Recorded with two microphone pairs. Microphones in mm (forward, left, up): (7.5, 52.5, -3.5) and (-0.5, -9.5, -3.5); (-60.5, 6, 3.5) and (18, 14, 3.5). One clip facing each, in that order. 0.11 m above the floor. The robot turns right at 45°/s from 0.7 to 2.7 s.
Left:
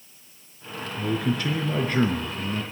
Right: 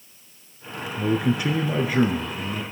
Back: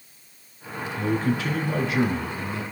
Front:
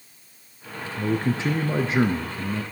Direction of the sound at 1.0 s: 60° right.